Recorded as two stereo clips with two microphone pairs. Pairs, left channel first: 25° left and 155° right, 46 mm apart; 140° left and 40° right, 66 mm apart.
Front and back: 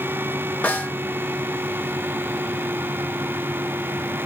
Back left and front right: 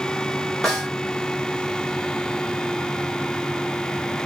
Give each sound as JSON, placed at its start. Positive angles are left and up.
{"t": 0.6, "sound": "a snare drum", "azimuth_deg": 60, "distance_m": 1.6}